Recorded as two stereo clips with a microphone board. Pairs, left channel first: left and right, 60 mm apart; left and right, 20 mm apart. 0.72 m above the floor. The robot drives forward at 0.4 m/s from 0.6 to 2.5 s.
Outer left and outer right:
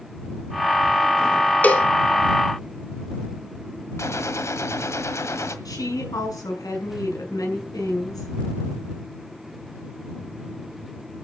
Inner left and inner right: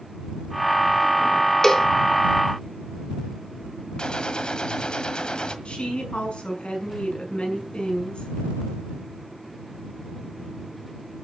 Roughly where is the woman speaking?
Left.